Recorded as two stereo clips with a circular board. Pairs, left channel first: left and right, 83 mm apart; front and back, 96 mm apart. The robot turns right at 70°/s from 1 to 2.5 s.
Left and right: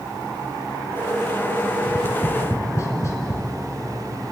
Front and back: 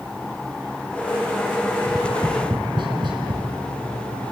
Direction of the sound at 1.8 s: 95° left.